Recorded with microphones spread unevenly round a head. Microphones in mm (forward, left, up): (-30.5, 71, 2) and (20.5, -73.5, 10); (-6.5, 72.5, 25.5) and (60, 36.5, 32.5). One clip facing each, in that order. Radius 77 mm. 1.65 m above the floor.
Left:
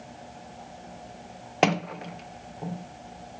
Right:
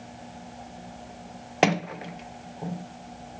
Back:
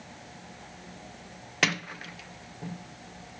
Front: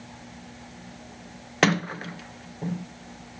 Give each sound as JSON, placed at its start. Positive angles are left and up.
{"t": 1.6, "sound": "a sliding door", "azimuth_deg": 15}